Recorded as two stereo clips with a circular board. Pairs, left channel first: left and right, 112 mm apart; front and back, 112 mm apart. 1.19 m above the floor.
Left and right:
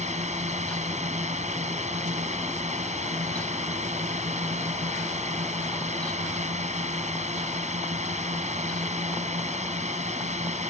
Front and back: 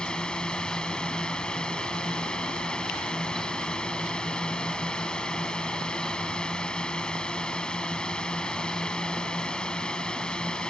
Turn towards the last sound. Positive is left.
turn(degrees=-80)